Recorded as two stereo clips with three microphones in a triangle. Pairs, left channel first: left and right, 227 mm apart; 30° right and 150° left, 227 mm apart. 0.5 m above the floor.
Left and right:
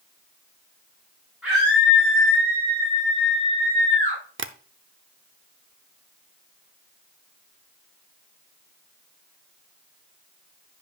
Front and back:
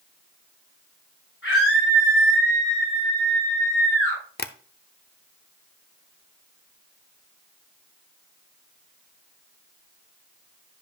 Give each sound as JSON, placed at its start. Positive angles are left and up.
{"t": 1.4, "sound": "a scream", "azimuth_deg": -10, "distance_m": 5.5}
{"t": 4.4, "sound": "tapping", "azimuth_deg": -70, "distance_m": 0.6}